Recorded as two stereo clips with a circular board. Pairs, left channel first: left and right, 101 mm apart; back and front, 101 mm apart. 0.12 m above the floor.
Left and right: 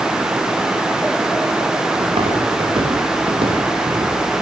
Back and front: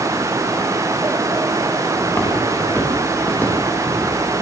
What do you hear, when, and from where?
2.0 s footsteps: 110° right, 9.5 m; by 4.1 s 105° right, 11.5 m